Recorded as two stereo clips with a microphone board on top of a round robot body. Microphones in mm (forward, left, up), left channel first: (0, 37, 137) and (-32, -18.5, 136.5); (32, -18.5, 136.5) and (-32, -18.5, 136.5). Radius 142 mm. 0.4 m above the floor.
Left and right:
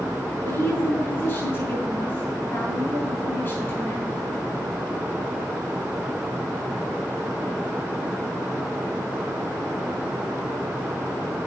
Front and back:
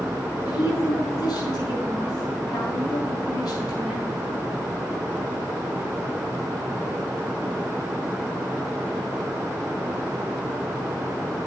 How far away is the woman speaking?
About 5 m.